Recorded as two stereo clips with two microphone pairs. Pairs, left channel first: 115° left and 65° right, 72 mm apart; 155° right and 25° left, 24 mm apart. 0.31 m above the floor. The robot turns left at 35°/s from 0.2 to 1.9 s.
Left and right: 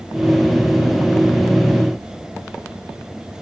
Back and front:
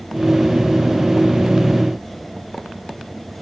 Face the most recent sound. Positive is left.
No sound to turn to.